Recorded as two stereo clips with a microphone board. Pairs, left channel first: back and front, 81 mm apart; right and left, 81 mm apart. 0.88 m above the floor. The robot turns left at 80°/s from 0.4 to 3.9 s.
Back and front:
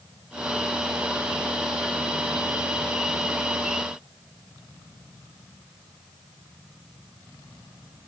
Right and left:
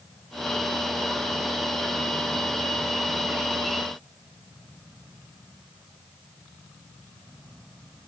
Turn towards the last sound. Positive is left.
No sound to turn to.